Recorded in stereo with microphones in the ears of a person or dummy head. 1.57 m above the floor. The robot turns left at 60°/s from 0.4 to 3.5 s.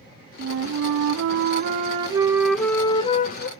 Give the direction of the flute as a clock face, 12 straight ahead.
2 o'clock.